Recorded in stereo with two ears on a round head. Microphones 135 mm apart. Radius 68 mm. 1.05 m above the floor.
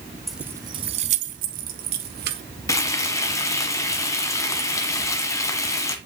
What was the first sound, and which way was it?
Keys jangling, centre (ahead or behind).